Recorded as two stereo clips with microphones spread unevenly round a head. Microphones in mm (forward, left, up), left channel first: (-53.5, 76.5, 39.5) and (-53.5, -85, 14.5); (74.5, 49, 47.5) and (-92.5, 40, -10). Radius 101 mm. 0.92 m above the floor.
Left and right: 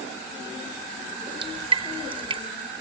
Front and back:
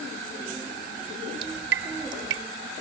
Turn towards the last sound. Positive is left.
turn(degrees=-150)